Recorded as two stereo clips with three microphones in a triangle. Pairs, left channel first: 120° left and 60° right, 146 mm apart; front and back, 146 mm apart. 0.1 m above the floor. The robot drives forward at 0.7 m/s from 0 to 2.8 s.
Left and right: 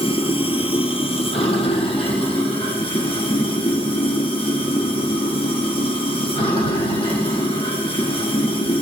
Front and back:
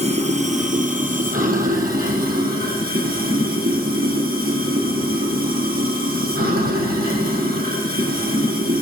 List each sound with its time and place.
0.0 s running water: 155° left, 1.2 m; by 8.8 s 175° left, 3 m